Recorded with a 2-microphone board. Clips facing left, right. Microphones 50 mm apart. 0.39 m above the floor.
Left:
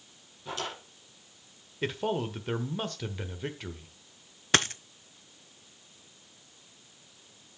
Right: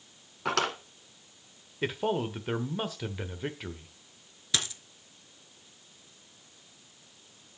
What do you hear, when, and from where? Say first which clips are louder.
0.5 s a drawer: right 8 dB; 80° right, 2 m
1.8 s a man speaking: right 1 dB; 5° right (ahead or behind), 0.9 m
4.5 s a dropped coin: left 7 dB; 50° left (ahead or behind), 0.6 m